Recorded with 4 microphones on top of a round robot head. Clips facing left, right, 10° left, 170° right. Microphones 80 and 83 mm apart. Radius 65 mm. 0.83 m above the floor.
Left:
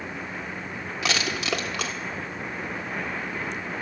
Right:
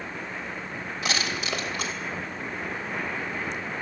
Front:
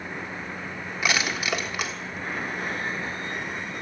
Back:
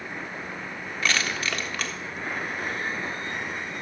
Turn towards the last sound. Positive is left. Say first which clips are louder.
# left 2 dB, front 1 dB
turn(degrees=85)